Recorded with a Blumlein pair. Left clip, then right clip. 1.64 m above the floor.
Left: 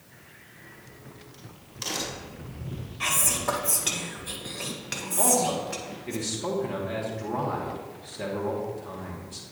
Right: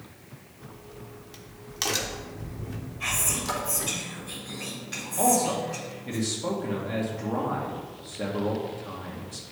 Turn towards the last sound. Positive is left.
turn(degrees=0)